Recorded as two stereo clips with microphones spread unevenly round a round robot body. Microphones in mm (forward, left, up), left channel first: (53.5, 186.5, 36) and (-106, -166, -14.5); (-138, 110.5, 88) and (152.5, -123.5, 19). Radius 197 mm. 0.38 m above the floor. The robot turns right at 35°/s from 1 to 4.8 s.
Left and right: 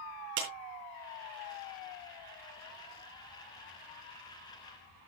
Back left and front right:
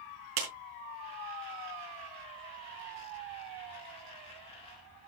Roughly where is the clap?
Ahead right.